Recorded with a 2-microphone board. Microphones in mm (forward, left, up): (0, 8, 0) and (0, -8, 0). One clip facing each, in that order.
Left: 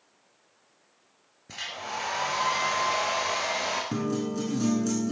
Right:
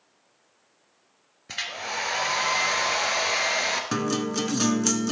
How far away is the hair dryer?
About 2 m.